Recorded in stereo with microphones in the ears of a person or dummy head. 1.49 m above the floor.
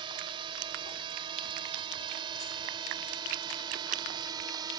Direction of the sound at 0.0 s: 30° right (ahead or behind).